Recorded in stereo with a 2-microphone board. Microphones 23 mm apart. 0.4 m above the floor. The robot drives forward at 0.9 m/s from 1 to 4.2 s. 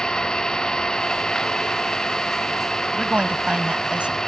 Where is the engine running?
35° left (ahead or behind); by 4.3 s 30° left (ahead or behind).